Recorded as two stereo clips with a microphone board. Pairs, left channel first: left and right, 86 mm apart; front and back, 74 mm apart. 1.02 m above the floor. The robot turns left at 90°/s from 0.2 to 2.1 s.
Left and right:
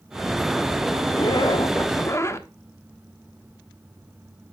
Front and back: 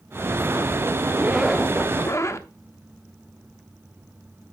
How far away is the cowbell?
I don't hear a cowbell.